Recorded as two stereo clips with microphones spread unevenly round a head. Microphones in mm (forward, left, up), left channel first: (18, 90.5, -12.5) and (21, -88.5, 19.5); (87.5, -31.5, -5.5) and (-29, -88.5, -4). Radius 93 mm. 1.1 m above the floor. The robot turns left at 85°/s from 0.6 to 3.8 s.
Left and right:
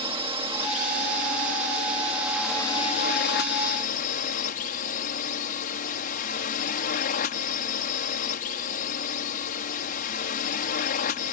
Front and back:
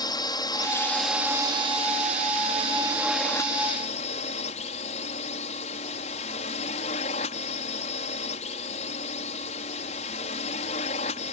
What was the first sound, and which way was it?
A drone, 25° right.